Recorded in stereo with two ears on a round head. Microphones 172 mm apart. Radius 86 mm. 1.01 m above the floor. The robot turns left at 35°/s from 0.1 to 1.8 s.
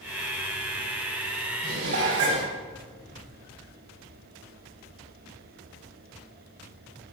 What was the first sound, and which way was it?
Dishes clattering, 60° right (ahead or behind).